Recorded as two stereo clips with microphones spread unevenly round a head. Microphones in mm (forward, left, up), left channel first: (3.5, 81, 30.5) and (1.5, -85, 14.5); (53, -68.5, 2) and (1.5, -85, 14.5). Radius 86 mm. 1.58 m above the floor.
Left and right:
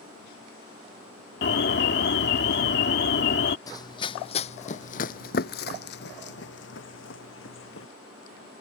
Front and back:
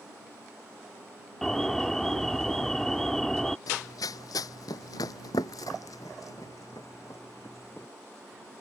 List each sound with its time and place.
1.4 s an alarm: 110° left
3.7 s running footsteps: 25° left; by 7.9 s 95° left